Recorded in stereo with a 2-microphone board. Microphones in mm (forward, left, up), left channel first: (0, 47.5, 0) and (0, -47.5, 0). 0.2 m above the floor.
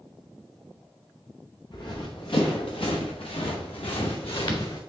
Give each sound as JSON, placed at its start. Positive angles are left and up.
{"t": 1.7, "sound": "running footsteps", "side_deg": 55, "distance_m": 1.8}